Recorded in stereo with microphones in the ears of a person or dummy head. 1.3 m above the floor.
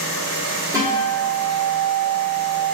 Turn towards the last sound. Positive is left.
turn(degrees=-20)  # may be behind; listen again after turning